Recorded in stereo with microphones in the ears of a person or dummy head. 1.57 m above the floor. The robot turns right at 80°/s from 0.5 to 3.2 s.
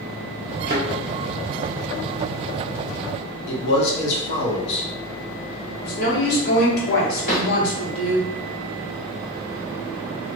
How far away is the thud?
About 1.3 m.